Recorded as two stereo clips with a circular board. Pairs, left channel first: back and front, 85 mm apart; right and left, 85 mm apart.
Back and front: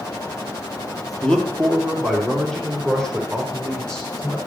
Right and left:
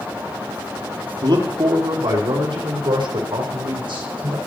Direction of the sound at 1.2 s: 105° left.